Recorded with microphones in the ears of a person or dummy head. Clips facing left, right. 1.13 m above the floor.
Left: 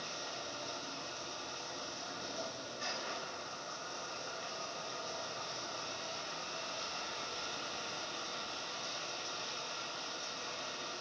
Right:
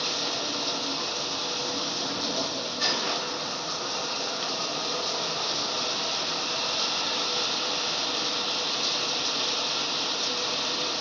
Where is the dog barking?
No dog barking in this recording.